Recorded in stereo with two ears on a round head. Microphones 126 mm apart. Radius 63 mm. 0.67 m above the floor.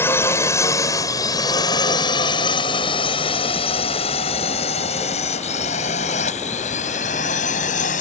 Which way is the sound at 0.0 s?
15° left (ahead or behind).